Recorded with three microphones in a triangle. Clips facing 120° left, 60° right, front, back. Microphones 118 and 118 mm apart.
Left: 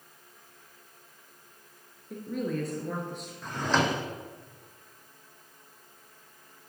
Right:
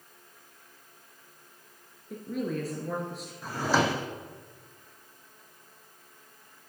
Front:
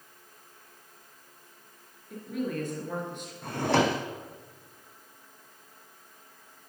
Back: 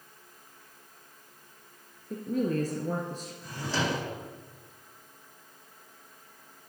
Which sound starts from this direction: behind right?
A woman speaking, at 2.1 s.